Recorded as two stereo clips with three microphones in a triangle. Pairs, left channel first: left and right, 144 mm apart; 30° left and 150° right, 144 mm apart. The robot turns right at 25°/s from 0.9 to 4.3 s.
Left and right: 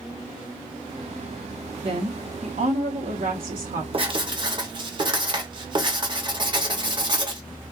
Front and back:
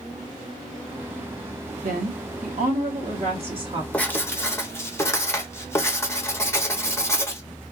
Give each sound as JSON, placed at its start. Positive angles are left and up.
{"t": 1.8, "sound": "a woman speaking", "azimuth_deg": -140, "distance_m": 0.7}
{"t": 3.9, "sound": "writing", "azimuth_deg": -50, "distance_m": 0.6}